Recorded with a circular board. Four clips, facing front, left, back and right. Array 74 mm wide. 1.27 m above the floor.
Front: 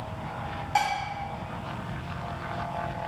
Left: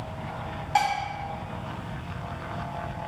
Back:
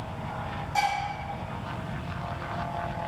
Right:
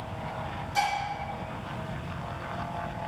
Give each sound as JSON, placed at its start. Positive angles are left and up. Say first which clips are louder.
{"t": 0.8, "sound": "dishes clattering", "louder": "left 4 dB, front 1 dB", "azimuth_deg": 60, "distance_m": 5.5}